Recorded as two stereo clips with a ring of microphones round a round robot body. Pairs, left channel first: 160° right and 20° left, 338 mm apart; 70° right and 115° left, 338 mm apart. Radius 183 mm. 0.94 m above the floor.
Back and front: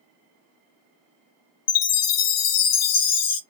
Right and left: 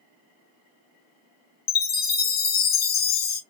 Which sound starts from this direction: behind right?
A chime, at 1.7 s.